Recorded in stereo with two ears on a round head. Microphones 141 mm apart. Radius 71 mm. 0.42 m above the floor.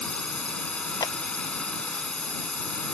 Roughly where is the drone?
Centre.